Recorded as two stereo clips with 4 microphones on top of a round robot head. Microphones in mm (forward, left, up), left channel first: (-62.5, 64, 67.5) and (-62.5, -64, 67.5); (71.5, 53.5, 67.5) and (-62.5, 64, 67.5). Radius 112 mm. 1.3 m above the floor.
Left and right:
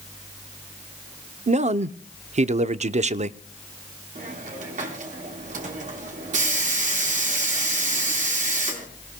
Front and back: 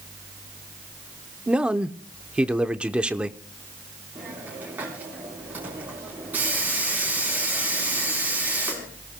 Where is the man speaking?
100° right, 0.7 m.